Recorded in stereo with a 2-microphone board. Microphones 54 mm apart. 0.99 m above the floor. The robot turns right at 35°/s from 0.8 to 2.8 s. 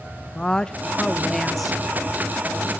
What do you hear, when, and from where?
0.3 s a woman speaking: 150° left, 0.9 m; by 1.8 s 175° right, 0.9 m